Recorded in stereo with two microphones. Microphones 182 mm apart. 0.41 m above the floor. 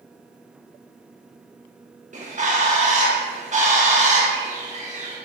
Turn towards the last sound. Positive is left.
turn(degrees=-40)  # may be behind; listen again after turning